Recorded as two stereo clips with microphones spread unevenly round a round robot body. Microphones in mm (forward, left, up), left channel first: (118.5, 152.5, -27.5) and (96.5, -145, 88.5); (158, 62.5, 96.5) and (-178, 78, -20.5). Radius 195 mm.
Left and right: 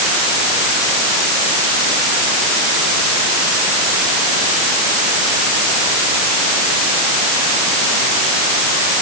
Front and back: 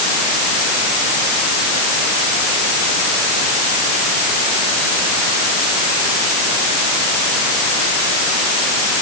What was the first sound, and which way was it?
Only background noise.